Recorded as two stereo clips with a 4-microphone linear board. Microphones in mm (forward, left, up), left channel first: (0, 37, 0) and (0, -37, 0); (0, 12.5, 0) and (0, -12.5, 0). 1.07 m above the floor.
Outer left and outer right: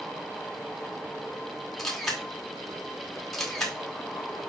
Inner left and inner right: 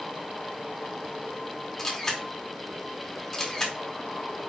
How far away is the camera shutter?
About 2 m.